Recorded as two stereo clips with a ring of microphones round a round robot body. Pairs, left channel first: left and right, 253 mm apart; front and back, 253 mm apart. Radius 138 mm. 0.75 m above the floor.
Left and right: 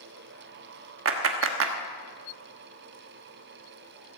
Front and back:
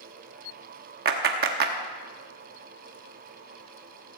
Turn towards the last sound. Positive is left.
turn(degrees=-125)